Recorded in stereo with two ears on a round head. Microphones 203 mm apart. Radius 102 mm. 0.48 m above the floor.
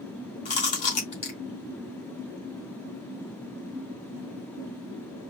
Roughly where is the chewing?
Left.